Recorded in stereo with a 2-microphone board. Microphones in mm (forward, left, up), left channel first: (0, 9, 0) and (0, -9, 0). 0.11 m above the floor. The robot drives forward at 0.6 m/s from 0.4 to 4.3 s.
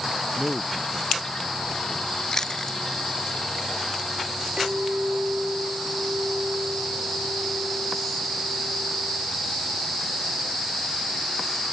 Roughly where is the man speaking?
Right.